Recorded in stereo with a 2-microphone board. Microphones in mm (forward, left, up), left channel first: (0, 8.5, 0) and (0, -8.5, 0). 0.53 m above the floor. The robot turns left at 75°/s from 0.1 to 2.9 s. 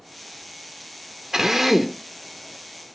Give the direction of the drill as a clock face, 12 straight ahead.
5 o'clock.